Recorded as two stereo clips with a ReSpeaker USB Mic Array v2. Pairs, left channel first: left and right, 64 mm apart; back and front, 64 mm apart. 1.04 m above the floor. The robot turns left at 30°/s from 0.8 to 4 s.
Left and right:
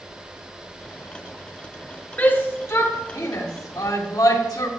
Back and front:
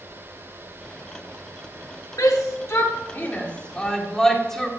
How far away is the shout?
About 2 m.